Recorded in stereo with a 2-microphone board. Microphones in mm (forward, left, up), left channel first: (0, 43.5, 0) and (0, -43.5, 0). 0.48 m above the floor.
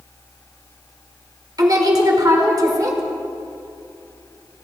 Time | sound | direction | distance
1.6 | a woman speaking | 45° right (ahead or behind) | 1.6 m